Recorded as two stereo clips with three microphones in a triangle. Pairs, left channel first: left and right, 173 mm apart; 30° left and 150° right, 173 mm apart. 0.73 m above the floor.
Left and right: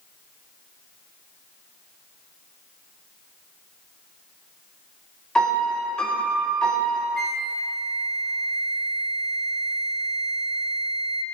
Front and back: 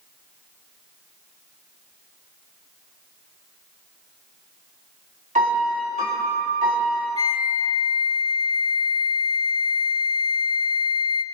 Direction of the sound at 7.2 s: 95° right.